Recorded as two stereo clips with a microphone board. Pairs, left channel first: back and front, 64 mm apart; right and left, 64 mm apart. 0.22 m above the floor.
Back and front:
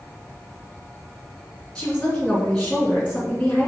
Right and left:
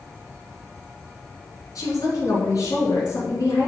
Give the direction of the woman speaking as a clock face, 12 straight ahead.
3 o'clock.